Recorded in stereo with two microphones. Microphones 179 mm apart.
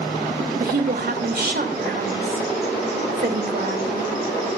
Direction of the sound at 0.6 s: 60° right (ahead or behind).